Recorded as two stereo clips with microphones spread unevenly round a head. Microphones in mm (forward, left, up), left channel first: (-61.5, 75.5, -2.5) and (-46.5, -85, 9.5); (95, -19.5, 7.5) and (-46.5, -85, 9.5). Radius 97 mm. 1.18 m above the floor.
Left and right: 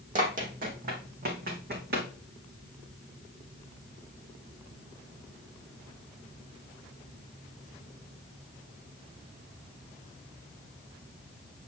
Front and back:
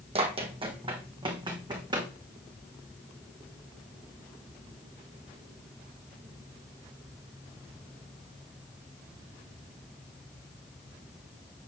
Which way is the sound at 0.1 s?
110° right.